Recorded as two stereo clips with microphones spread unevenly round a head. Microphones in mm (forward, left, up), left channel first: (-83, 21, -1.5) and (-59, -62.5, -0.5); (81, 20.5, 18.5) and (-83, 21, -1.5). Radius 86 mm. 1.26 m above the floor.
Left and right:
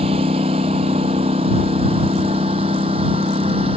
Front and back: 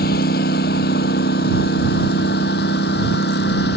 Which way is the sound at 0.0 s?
35° right.